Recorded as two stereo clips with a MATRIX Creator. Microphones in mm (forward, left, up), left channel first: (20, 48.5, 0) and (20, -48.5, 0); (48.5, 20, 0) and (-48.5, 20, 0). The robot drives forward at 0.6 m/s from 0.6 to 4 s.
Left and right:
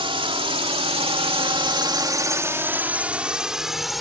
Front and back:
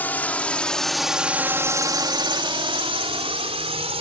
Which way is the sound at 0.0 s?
70° right.